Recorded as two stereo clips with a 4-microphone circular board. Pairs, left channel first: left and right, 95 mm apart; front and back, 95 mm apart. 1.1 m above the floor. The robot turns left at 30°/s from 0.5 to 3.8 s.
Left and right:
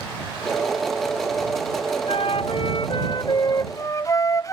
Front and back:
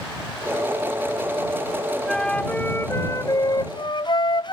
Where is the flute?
85° left; by 4.5 s 35° left.